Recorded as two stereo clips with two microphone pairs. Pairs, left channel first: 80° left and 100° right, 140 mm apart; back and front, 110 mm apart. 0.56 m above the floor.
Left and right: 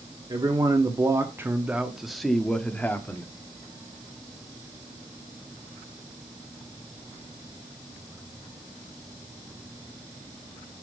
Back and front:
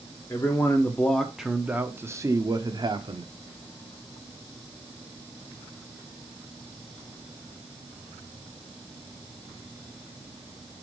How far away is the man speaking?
About 1.1 m.